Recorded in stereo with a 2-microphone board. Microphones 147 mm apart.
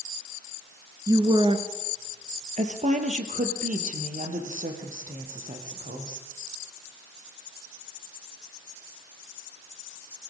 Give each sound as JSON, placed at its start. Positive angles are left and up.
{"t": 1.1, "sound": "a woman speaking", "side_deg": -25, "distance_m": 1.5}